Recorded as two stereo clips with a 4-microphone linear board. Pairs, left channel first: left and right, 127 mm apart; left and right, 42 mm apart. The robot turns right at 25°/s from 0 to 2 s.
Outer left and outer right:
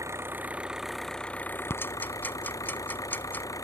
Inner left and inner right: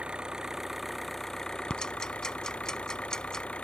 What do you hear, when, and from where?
0.0 s an engine running: 25° right; by 3.6 s 25° left
1.7 s ticking: 20° left (ahead or behind); by 3.5 s 15° left (ahead or behind)